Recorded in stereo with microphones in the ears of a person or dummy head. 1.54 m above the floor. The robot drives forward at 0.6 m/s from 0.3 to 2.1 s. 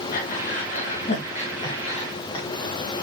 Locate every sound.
0.1 s breathing: 50° left (ahead or behind), 2.5 m; by 2.5 s 35° left (ahead or behind), 3 m